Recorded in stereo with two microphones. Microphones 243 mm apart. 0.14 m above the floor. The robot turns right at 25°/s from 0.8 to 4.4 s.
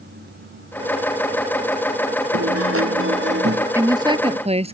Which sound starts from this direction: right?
A guitar, at 2.3 s.